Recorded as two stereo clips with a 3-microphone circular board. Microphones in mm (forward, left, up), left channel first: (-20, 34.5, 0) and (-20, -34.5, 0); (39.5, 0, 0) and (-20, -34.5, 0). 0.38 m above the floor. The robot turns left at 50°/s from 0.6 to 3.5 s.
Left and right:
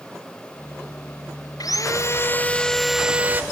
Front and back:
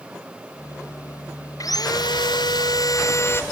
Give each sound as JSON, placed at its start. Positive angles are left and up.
{"t": 1.6, "sound": "sawing", "azimuth_deg": 65}